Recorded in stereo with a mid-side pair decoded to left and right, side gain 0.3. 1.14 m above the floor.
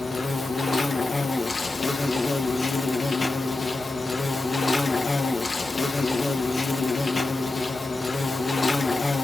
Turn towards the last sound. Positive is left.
turn(degrees=45)